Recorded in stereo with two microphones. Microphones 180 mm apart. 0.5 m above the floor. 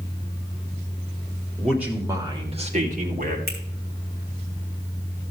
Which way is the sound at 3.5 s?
65° right (ahead or behind).